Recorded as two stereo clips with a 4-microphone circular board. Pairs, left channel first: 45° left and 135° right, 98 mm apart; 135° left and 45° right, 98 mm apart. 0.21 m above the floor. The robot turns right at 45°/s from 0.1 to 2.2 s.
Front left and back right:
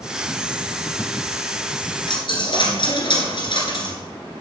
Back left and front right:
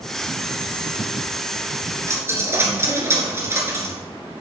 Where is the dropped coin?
10° left, 1.8 m; by 4.0 s 20° left, 1.8 m.